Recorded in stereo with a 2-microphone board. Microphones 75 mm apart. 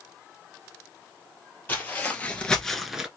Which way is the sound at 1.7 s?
25° left (ahead or behind).